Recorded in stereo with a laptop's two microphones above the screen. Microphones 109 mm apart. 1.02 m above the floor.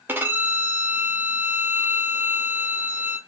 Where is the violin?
20° right (ahead or behind), 0.7 m.